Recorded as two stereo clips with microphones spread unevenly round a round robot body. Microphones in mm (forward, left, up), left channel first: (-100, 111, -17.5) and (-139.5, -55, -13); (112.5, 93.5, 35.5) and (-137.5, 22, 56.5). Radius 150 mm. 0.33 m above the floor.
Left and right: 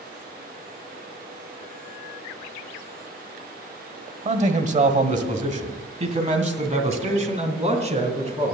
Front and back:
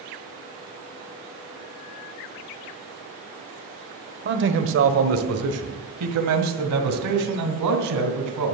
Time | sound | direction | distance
4.2 | a man speaking | 130° right | 1.1 m